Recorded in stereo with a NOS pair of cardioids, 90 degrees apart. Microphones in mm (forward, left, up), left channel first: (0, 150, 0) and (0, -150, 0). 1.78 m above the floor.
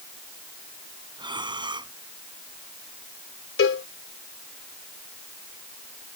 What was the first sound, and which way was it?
Breathing, 15° right.